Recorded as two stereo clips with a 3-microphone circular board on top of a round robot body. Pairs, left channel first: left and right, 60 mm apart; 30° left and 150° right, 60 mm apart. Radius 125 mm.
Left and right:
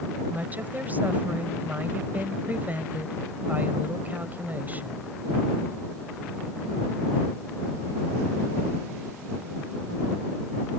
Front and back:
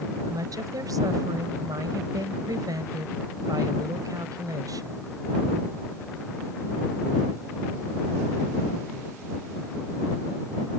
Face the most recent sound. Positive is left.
turn(degrees=-150)